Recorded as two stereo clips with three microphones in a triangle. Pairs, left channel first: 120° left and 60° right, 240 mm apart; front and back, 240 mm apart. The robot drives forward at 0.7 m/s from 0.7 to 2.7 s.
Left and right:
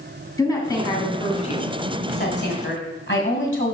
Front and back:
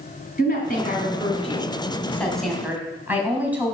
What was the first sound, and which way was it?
A woman speaking, 45° left.